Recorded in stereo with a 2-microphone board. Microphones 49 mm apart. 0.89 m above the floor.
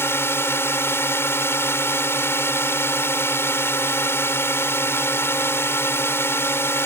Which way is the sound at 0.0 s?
55° left (ahead or behind).